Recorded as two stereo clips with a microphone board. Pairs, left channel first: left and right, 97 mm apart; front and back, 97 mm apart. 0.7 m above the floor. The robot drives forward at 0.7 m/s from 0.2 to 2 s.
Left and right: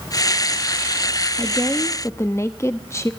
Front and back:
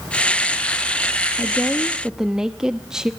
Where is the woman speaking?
55° left, 1.0 m; by 3.1 s 100° left, 0.9 m.